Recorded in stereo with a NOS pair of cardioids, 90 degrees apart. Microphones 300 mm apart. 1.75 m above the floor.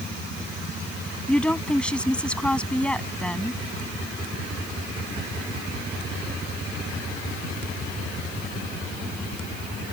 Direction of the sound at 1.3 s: 5° left.